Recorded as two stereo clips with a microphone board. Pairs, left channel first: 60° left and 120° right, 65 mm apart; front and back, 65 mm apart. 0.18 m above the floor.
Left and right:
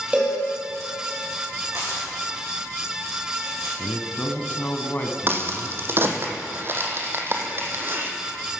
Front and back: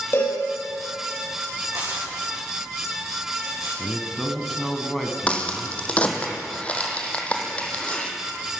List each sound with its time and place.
0.1 s a cowbell: 50° right, 3.5 m
1.6 s tearing paper: 160° right, 5 m
3.8 s a man speaking: 90° left, 1.2 m
5.3 s a crack: 70° right, 1.4 m